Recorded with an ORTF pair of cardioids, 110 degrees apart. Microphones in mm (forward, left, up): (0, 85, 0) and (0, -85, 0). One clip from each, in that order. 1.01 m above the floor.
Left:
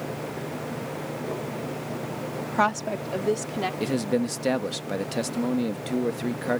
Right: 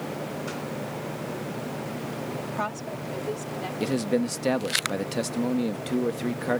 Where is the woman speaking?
45° left; by 3.7 s 50° left.